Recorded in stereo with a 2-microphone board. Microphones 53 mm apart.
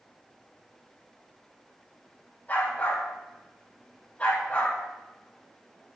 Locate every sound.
2.5 s a dog barking: 35° left (ahead or behind), 9 m; by 4.8 s 25° left (ahead or behind), 9.5 m